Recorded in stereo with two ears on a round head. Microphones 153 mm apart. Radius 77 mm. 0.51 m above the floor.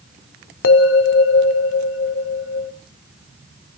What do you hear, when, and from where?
0.6 s a bell: 85° left, 0.9 m